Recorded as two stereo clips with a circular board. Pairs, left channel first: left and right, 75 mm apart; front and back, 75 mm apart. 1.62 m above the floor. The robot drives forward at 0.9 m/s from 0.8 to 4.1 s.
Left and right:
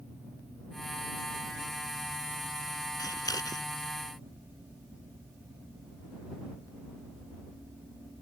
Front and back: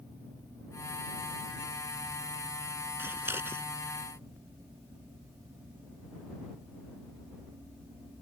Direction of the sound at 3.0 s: 120° left.